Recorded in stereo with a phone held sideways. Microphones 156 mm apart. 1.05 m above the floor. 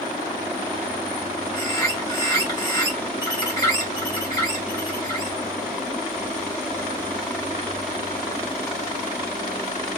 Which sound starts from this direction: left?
A bird, at 1.5 s.